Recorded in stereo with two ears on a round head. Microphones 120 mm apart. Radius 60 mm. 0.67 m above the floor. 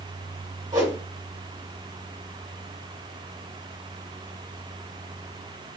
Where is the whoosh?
30° right (ahead or behind), 1.8 m.